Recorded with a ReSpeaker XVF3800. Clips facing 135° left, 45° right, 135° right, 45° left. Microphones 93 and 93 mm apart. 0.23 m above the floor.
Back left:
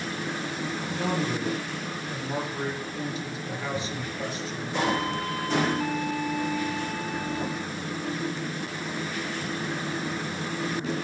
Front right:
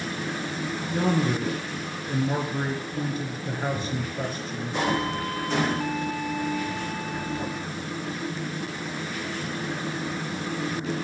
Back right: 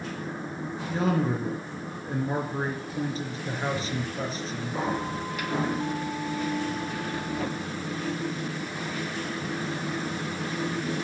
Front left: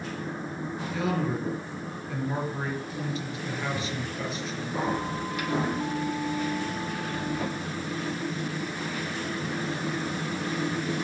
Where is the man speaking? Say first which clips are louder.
Front right 5 dB, back right 3 dB; 80° right, 3.5 m.